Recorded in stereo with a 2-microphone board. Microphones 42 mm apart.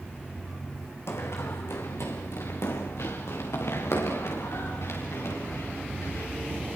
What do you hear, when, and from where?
1.1 s running footsteps: 75° left (ahead or behind), 3 m; by 6.6 s 85° left, 11 m